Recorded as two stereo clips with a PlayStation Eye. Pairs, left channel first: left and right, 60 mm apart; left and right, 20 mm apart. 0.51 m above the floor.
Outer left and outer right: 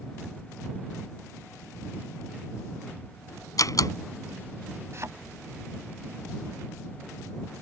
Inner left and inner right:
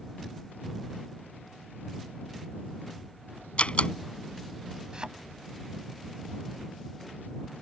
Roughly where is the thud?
Right.